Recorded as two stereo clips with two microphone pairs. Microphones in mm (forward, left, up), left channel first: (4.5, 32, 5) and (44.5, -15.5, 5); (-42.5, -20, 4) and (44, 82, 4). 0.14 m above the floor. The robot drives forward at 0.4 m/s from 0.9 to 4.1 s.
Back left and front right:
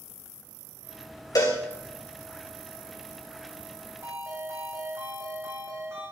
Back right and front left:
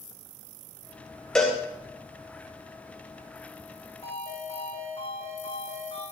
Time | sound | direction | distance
1.4 | a cowbell | 145° left | 2.5 m
4.0 | a ringtone | 90° right | 6 m